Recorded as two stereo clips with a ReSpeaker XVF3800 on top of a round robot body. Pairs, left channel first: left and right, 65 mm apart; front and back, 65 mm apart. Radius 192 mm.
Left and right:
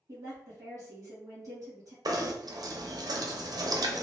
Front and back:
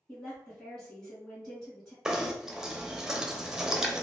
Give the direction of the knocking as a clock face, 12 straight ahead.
3 o'clock.